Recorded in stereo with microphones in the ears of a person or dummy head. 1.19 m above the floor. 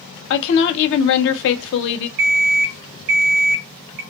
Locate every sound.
0.3 s a woman speaking: 60° left (ahead or behind), 0.7 m
2.2 s an alarm clock: 45° right (ahead or behind), 0.6 m